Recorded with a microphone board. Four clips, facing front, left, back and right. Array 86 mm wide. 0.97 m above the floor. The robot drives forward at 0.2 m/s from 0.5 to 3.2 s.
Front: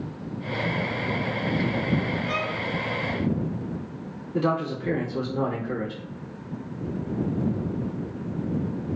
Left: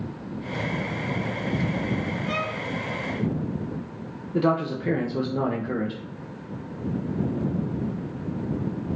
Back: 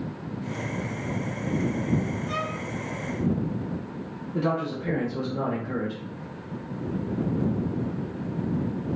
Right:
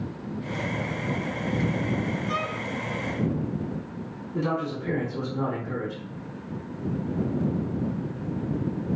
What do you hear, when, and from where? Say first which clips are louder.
2.3 s a violin: even, front 2 dB; 60° left, 1.4 m
4.3 s a man speaking: left 5 dB, front 2 dB; 80° left, 0.6 m